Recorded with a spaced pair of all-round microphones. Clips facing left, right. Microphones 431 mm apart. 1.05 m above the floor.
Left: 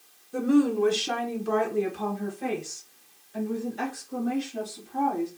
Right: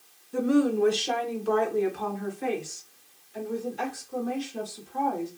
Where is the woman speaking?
5° right (ahead or behind), 0.7 m; by 5.3 s 75° left (ahead or behind), 2.5 m.